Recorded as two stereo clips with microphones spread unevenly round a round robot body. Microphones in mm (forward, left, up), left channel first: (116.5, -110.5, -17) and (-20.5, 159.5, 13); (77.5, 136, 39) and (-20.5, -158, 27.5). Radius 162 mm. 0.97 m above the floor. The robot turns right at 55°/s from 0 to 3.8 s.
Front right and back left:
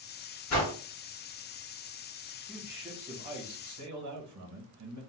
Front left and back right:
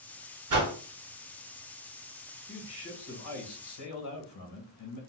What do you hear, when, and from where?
0.5 s a whoosh: 100° right, 1.6 m; by 0.7 s 85° right, 1.6 m
2.5 s a man speaking: 20° left, 1.5 m; by 5.0 s 95° left, 1.5 m